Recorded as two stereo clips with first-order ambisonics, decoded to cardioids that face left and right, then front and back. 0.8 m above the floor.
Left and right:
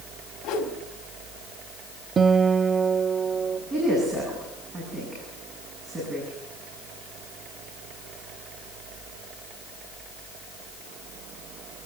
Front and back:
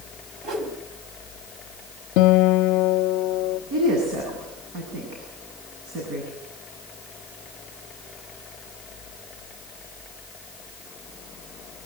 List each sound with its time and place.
0.4 s a whoosh: 135° left, 3.5 m
2.2 s a guitar: 20° right, 0.6 m
3.7 s a woman speaking: 160° right, 8 m